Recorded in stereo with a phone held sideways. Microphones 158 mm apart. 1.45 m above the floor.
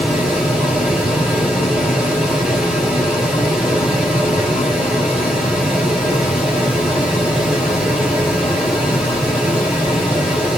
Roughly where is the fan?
Centre.